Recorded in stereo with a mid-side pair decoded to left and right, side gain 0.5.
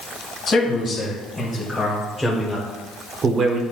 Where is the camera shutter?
No camera shutter in this recording.